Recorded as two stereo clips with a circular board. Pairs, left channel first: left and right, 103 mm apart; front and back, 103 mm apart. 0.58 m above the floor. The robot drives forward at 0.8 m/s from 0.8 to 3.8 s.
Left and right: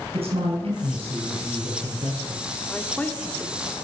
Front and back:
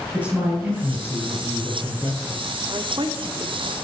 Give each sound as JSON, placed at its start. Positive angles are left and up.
{"t": 0.1, "sound": "a man speaking", "azimuth_deg": -105, "distance_m": 7.5}
{"t": 2.7, "sound": "a man speaking", "azimuth_deg": 165, "distance_m": 1.1}